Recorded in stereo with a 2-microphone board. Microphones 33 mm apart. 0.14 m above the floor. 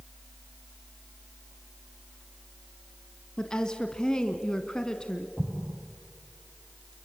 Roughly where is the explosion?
Right.